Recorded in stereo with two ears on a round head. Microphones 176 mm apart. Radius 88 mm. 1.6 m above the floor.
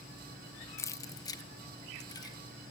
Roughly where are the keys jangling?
Centre.